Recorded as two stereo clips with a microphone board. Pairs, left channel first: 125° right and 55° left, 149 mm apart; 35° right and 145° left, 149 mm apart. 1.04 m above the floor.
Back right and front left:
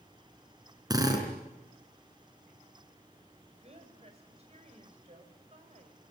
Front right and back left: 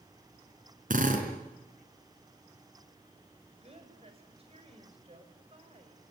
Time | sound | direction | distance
0.9 | a drill | 120° left | 5 m
3.5 | a woman speaking | 100° left | 5.5 m